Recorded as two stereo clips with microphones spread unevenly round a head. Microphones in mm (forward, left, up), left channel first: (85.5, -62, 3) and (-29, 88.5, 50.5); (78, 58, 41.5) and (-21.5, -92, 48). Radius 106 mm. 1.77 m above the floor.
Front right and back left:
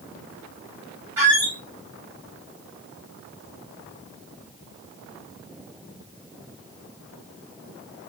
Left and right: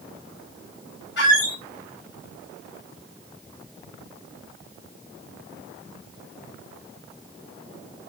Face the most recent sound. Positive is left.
turn(degrees=70)